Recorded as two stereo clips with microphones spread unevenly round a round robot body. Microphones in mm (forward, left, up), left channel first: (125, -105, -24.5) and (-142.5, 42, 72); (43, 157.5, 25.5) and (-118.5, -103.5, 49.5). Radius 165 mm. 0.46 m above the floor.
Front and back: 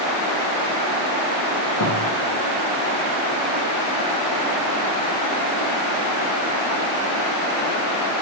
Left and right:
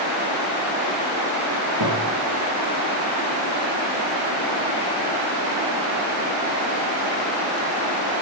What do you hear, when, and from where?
1.8 s a thud: 80° right, 5 m